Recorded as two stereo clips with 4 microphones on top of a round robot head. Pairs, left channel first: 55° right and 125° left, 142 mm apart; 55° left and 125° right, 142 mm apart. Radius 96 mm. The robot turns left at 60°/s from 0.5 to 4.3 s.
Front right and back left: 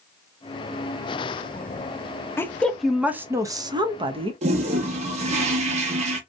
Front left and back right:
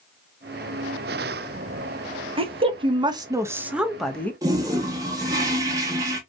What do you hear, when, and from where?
2.4 s a woman speaking: 120° right, 0.7 m; by 4.3 s 125° left, 0.7 m
4.4 s a toilet flushing: 170° left, 0.6 m